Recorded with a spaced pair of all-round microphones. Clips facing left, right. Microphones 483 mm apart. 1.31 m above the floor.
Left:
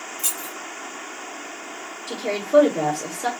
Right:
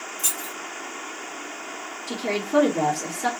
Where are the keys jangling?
15° left (ahead or behind), 0.9 m.